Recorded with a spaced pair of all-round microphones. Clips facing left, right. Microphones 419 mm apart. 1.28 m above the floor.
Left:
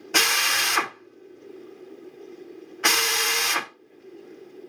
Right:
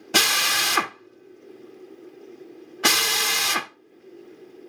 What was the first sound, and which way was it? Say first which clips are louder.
A drill: right 3 dB; 50° right (ahead or behind).